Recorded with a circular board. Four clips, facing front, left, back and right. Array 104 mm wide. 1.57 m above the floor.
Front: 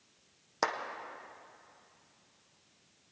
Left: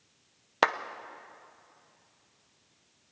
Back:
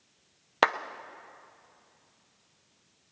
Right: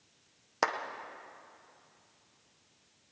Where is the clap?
150° left, 0.6 m.